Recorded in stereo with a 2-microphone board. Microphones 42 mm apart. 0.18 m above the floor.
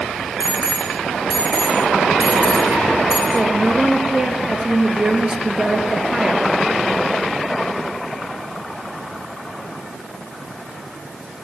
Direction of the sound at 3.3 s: 20° right (ahead or behind).